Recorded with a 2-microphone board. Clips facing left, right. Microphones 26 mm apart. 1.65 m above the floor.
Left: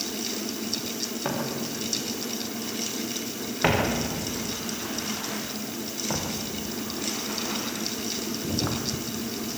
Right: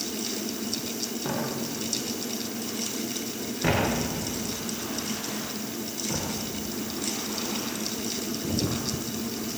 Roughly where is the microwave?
No microwave in this recording.